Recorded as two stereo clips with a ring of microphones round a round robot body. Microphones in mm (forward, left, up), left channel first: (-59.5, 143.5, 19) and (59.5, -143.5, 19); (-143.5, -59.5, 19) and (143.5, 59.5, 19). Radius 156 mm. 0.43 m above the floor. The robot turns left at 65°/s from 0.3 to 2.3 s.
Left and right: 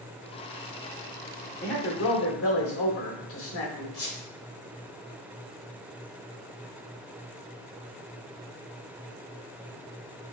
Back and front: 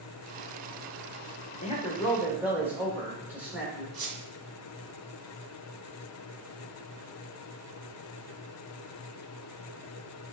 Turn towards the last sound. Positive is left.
turn(degrees=40)